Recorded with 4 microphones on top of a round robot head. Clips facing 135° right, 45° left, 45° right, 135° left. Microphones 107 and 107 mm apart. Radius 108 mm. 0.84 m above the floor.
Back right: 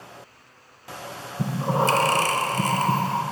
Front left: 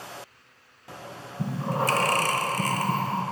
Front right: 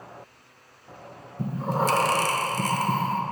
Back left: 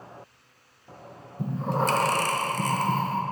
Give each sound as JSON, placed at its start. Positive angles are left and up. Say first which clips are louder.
{"t": 1.4, "sound": "breathing", "louder": "back right 4 dB, front right 1 dB", "azimuth_deg": -125, "distance_m": 0.9}